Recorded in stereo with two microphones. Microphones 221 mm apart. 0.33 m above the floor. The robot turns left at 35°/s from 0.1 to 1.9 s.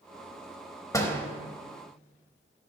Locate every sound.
0.9 s a door slam: 15° left (ahead or behind), 0.8 m; by 1.2 s 5° left (ahead or behind), 0.8 m